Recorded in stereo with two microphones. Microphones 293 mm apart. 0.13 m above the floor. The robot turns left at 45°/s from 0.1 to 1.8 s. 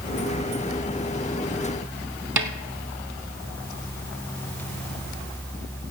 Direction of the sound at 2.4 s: 75° right (ahead or behind).